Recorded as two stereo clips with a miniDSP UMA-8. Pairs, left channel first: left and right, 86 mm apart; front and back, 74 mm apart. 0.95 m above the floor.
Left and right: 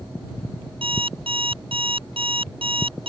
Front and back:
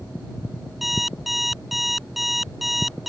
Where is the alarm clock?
90° right.